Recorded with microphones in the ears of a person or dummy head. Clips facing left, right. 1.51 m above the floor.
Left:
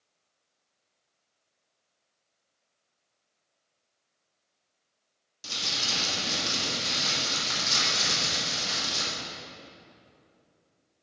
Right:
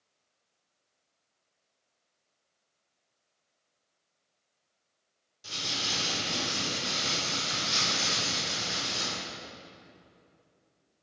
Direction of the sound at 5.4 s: 75° left (ahead or behind).